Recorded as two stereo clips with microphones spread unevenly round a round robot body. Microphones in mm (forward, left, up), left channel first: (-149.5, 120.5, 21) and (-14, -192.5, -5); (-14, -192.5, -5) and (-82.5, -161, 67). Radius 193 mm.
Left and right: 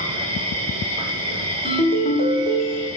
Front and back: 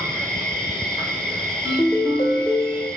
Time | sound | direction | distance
0.0 | an insect | 140° right | 1.2 m
1.6 | a ringtone | 45° left | 0.7 m